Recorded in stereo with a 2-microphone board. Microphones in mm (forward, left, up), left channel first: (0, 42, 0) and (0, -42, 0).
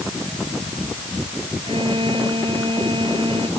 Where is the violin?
90° right.